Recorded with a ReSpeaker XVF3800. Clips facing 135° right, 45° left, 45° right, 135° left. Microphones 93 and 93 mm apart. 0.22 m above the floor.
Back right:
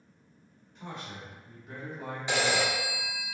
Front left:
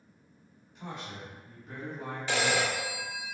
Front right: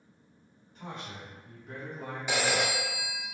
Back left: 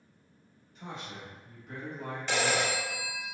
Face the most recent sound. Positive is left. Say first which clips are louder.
# back right 1 dB, even
turn(degrees=-105)